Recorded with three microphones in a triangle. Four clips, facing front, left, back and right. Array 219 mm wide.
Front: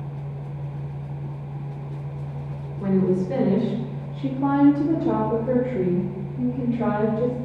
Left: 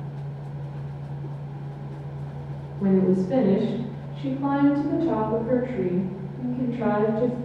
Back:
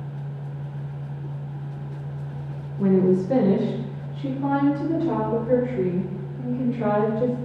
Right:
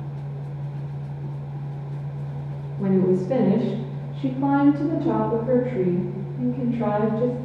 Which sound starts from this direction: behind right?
A woman speaking, at 2.8 s.